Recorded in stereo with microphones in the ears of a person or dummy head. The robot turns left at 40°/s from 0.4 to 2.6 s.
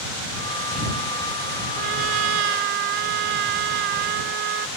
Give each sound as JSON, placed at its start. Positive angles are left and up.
{"t": 1.8, "sound": "a trumpet", "azimuth_deg": -70}